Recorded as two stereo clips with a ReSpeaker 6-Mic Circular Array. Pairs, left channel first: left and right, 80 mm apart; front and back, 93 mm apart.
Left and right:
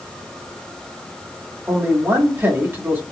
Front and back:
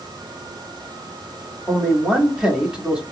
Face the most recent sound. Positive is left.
turn(degrees=-105)